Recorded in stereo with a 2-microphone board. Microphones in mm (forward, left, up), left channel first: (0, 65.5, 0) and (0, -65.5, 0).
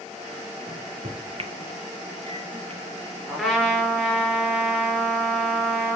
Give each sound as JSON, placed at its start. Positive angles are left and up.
{"t": 0.7, "sound": "a microwave", "side_deg": -45, "distance_m": 1.2}
{"t": 3.3, "sound": "a trumpet", "side_deg": 5, "distance_m": 3.0}